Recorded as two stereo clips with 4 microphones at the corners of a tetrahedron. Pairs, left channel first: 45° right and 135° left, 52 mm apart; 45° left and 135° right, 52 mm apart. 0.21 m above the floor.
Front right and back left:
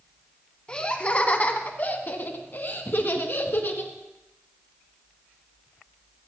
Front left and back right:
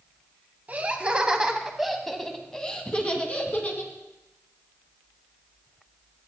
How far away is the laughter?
About 1.5 m.